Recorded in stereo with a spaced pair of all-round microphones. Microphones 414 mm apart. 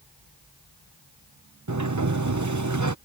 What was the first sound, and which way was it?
A sliding door, 40° right (ahead or behind).